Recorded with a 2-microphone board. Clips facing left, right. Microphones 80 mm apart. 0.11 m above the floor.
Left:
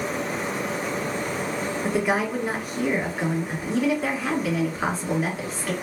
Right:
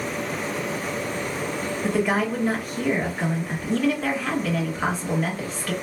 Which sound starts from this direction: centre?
A woman speaking, at 1.8 s.